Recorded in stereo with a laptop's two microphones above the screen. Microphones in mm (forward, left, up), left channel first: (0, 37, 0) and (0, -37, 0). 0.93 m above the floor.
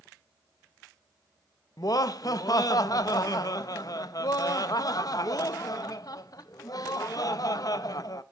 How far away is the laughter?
About 0.6 m.